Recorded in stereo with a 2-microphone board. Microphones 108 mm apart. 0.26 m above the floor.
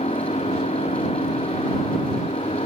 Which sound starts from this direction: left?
An engine running, at 0.0 s.